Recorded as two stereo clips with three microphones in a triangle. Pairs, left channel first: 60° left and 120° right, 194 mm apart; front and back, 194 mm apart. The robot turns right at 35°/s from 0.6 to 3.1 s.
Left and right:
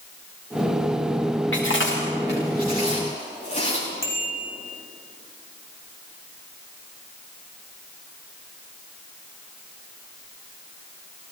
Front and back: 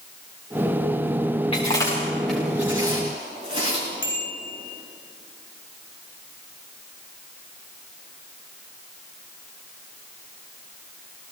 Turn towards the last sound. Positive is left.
turn(degrees=-20)